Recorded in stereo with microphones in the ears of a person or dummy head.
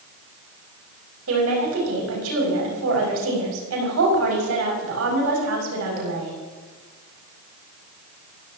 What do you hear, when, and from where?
1.3 s a woman speaking: 80° right, 7.5 m